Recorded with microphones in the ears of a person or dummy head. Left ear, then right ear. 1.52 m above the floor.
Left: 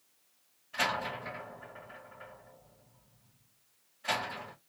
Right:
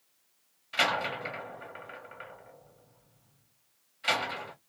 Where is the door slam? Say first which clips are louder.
Right 4 dB; 70° right (ahead or behind), 1.4 m.